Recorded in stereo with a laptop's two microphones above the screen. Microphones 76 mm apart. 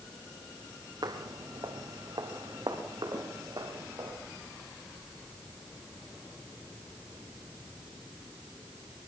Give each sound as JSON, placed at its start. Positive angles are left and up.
{"t": 1.0, "sound": "footsteps", "side_deg": -60, "distance_m": 2.0}